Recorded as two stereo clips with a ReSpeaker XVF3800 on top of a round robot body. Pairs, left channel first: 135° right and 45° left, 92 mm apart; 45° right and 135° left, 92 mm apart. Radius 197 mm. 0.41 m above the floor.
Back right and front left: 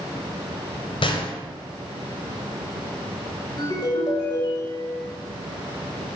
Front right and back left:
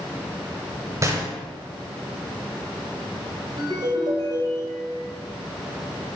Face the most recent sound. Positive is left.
turn(degrees=180)